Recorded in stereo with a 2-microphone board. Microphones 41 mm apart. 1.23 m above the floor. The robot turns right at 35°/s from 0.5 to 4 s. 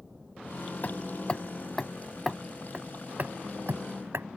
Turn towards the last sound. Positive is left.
turn(degrees=-65)  # may be behind; listen again after turning